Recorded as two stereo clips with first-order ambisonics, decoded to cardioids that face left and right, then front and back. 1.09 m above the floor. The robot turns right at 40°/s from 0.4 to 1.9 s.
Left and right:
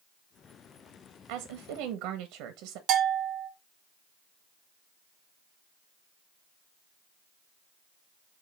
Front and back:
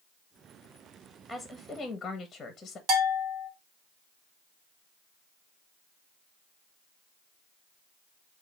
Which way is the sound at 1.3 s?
100° right.